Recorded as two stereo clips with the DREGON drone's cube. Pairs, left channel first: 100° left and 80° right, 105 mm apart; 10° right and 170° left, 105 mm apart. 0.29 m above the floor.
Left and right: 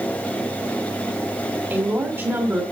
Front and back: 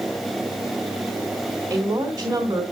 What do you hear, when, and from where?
1.7 s a woman speaking: 135° right, 2 m